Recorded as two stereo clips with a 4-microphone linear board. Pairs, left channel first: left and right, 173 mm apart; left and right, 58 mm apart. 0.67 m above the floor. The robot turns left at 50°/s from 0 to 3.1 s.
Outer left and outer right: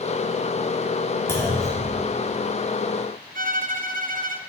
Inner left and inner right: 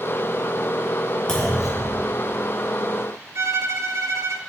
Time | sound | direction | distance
1.3 | a clunk | 20° left | 1.4 m
3.4 | a violin | 55° right (ahead or behind) | 0.5 m